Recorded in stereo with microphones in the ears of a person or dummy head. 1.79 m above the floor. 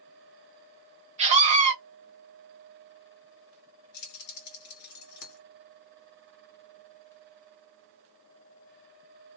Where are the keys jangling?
50° left (ahead or behind), 1.5 m.